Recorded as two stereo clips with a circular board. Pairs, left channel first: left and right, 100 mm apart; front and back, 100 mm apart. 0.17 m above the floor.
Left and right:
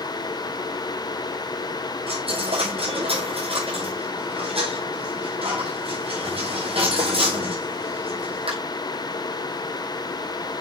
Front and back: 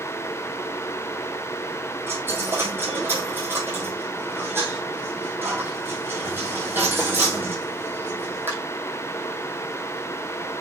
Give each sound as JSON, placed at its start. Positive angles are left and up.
{"t": 2.1, "sound": "a dropped coin", "azimuth_deg": -110, "distance_m": 5.5}